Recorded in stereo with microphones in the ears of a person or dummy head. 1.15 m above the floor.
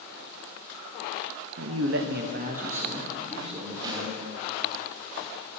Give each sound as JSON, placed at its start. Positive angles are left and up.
{"t": 1.6, "sound": "a man speaking", "side_deg": -70, "distance_m": 0.8}
{"t": 3.8, "sound": "a snare drum", "side_deg": -15, "distance_m": 2.5}